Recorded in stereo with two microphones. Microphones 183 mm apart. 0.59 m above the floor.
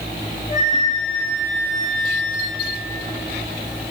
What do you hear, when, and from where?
0.5 s a flute: 40° left (ahead or behind), 7.5 m